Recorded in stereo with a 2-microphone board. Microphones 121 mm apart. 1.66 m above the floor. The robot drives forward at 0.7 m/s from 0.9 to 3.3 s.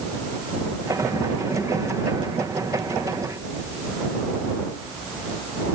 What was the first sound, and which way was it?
Only background noise.